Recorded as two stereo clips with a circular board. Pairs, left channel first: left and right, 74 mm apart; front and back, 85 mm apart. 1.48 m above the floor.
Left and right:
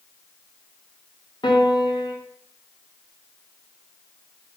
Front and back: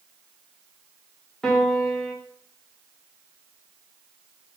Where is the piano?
80° left, 1.8 m.